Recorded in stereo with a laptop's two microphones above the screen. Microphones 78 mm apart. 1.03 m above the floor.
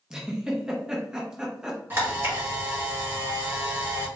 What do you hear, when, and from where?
0.1 s a giggle: 10° right (ahead or behind), 0.6 m
1.9 s a camera shutter: 25° right (ahead or behind), 1.4 m